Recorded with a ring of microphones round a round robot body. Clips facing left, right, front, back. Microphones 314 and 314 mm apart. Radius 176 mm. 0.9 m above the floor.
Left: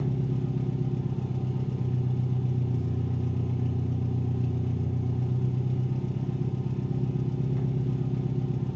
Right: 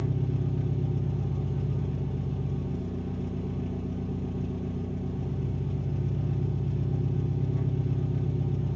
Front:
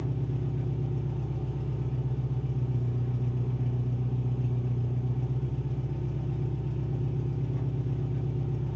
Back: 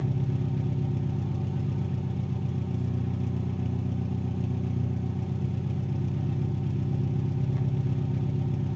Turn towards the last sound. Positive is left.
turn(degrees=165)